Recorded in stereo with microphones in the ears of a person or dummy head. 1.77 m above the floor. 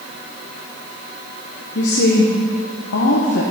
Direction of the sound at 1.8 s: 75° left (ahead or behind).